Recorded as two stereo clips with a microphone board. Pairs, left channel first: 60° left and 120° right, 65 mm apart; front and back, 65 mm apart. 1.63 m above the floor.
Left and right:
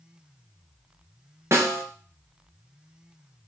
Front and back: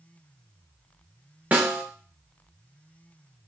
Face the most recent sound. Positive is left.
turn(degrees=-130)